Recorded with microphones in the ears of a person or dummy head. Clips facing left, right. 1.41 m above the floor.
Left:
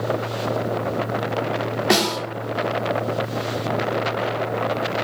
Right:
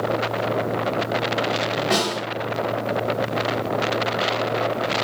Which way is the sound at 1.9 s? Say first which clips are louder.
Left 5 dB; 70° left (ahead or behind).